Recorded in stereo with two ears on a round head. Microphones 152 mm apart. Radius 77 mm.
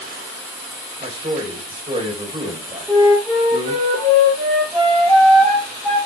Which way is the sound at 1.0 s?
30° right (ahead or behind).